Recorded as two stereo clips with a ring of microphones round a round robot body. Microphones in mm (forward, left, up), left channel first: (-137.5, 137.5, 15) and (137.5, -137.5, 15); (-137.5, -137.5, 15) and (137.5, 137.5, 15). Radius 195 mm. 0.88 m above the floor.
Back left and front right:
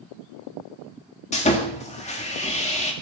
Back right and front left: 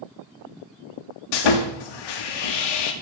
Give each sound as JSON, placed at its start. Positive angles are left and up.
{"t": 1.3, "sound": "sawing", "azimuth_deg": -155, "distance_m": 2.0}